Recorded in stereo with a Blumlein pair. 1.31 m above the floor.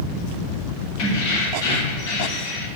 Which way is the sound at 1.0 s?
45° left.